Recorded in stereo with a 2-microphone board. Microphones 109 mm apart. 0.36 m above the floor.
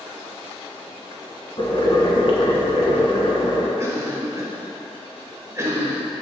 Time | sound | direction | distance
1.6 | boiling | 50° left (ahead or behind) | 1.0 m
3.8 | a cough | 30° right (ahead or behind) | 1.2 m